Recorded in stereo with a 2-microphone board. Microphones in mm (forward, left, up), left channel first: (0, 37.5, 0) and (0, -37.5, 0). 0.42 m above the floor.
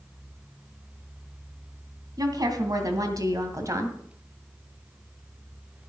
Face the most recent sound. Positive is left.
turn(degrees=-45)  # may be behind; listen again after turning